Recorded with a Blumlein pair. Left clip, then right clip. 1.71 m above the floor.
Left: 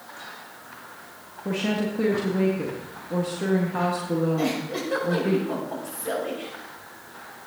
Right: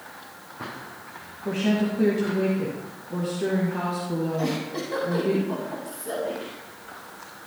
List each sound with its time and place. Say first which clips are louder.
1.4 s a woman speaking: right 1 dB; 15° left, 2 m
4.4 s a giggle: left 1 dB; 40° left, 6 m